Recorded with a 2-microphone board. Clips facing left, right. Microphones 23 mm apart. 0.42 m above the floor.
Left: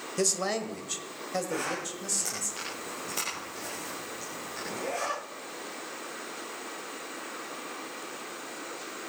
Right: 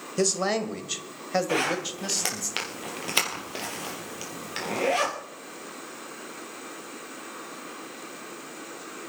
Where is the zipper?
75° right (ahead or behind), 3.5 m.